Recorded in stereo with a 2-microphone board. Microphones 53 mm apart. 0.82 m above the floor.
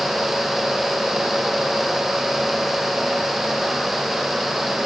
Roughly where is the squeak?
I don't hear a squeak.